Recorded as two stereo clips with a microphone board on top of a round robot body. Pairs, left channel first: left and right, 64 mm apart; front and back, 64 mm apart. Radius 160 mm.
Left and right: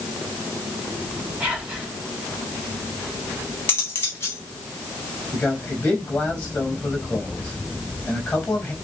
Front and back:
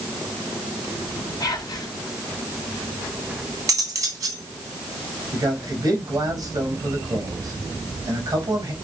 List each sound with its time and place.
1.4 s whispering: 10° right, 2.5 m
3.7 s cutlery clinking: 145° left, 3 m
5.3 s a man speaking: 155° left, 4.5 m